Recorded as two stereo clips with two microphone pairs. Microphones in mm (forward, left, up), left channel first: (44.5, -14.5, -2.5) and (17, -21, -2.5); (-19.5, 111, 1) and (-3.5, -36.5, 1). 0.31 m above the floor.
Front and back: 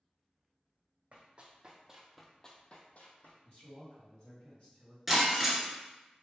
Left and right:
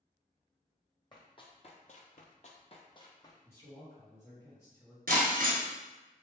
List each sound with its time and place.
1.1 s running footsteps: 150° left, 0.9 m; by 3.4 s 35° left, 1.0 m
3.5 s a man speaking: 35° left, 1.8 m
5.1 s breaking glass: 80° right, 1.2 m